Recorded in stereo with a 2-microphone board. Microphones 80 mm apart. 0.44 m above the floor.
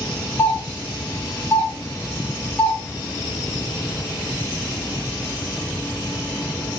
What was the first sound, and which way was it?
A doorbell, 20° left (ahead or behind).